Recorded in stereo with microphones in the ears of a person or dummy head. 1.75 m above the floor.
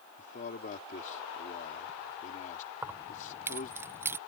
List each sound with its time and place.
0.2 s a man speaking: 45° left (ahead or behind)
2.8 s keys jangling: 15° right (ahead or behind)